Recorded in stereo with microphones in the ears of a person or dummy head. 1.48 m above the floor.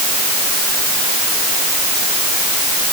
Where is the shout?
No shout in this recording.